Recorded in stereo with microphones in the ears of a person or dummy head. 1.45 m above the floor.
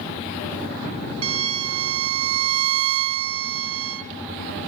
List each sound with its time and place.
1.2 s a violin: 30° right (ahead or behind), 0.8 m